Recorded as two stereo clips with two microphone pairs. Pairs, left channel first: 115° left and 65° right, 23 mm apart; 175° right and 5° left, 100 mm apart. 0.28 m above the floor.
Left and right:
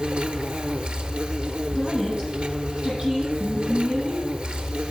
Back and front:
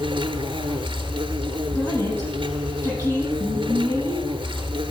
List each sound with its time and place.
0.0 s an insect: 30° right, 1.0 m
1.7 s a woman speaking: 120° right, 8.5 m